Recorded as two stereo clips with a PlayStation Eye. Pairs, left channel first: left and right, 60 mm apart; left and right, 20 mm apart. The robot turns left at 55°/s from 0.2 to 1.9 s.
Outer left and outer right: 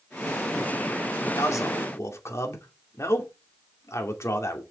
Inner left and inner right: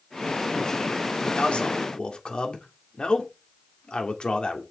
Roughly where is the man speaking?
Left.